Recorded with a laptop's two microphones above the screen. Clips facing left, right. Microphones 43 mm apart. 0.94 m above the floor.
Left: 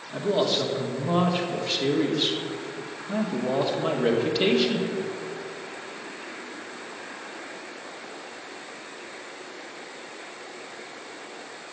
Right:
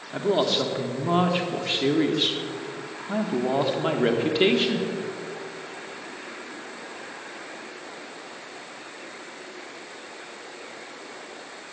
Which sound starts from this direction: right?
A man speaking, at 0.1 s.